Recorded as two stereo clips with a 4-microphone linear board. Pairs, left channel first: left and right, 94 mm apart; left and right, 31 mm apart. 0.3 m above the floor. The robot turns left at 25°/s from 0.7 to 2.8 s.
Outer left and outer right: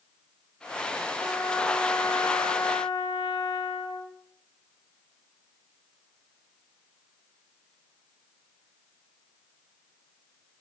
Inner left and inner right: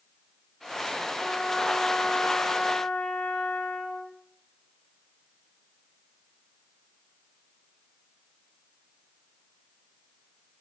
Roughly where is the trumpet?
Behind left.